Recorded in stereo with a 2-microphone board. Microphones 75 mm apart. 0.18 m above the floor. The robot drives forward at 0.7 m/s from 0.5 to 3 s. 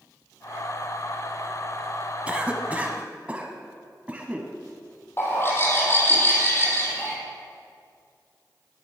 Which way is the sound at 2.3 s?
15° right (ahead or behind).